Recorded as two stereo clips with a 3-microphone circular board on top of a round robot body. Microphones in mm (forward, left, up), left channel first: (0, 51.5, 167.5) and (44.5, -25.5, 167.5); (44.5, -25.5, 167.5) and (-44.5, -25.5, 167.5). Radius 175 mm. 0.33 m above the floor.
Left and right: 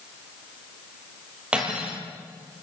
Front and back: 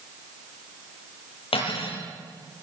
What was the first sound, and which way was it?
Cutlery clinking, 20° left.